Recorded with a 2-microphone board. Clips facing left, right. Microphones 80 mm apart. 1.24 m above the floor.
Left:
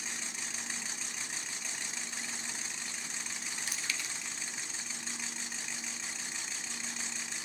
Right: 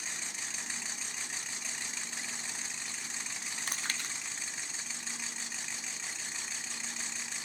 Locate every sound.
3.7 s chewing: 50° right (ahead or behind), 0.5 m